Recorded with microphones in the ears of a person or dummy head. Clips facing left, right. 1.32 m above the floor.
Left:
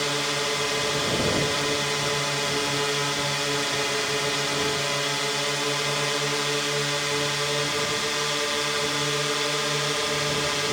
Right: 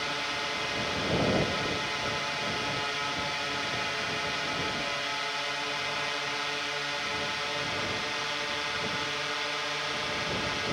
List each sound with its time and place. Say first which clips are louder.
0.0 s a drone: left 8 dB; 55° left (ahead or behind)